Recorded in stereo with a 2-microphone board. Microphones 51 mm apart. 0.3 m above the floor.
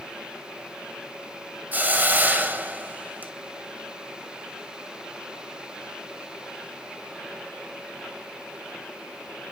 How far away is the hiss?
About 1.2 m.